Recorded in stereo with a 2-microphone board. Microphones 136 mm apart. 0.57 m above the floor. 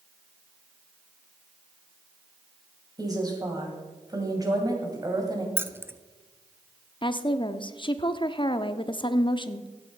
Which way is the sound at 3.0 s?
25° right (ahead or behind).